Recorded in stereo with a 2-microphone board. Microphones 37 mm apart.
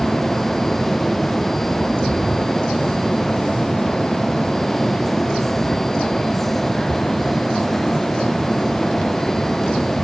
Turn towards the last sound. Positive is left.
No sound to turn to.